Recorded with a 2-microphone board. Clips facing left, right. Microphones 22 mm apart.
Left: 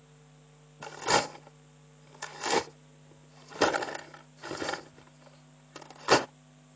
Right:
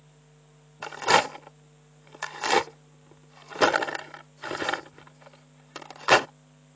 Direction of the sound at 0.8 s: 30° right (ahead or behind).